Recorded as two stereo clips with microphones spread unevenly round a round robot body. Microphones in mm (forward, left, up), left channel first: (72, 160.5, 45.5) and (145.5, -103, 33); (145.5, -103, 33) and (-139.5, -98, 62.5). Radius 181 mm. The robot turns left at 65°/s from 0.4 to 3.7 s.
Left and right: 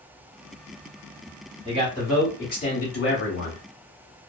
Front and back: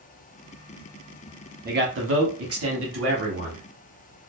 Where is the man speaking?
130° right, 1.1 m; by 3.6 s 105° left, 1.1 m.